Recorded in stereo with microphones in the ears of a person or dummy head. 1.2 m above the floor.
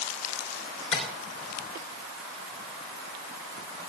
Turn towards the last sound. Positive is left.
turn(degrees=40)  # may be behind; listen again after turning